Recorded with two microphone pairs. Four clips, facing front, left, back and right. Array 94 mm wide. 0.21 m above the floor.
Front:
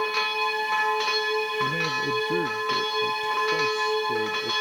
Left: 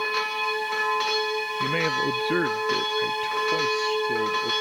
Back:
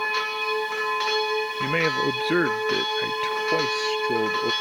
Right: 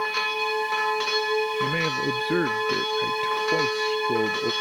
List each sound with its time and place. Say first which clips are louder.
1.6 s a man speaking: left 1 dB, back 3 dB; 160° left; by 4.5 s 145° right